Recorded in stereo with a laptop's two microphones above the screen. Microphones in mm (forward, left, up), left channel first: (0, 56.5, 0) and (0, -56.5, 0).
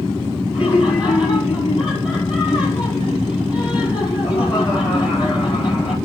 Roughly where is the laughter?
Left.